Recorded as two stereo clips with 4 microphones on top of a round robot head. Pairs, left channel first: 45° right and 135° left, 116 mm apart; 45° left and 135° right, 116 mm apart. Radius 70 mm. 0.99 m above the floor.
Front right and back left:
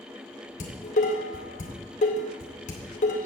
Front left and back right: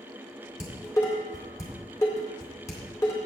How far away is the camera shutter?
I don't hear a camera shutter.